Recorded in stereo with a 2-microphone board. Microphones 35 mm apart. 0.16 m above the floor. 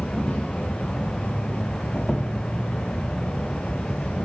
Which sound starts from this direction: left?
An insect, at 0.0 s.